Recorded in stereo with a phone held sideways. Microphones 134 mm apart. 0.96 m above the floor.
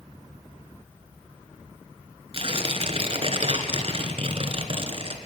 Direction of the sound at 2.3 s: 40° right (ahead or behind).